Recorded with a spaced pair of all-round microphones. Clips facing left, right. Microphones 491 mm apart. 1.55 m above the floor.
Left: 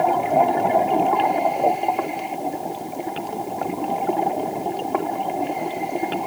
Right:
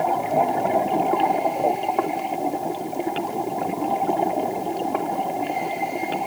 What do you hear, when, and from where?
Only background noise.